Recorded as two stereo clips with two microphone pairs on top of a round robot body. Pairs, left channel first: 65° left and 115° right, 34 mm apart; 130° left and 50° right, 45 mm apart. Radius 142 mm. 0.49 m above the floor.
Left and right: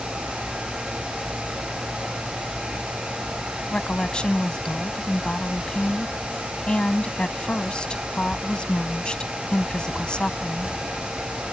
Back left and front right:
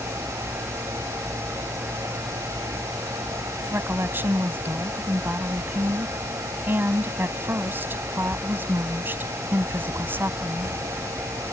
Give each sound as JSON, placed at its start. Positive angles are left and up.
{"t": 3.7, "sound": "a woman speaking", "azimuth_deg": 0}